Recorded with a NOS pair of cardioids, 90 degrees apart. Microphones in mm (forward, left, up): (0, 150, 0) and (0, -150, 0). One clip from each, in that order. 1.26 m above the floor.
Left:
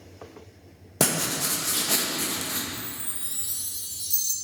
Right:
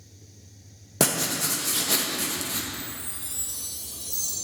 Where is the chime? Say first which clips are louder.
Even; 20° left, 1.8 m.